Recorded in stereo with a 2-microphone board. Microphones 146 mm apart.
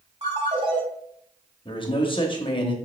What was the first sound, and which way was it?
A ringtone, 45° right (ahead or behind).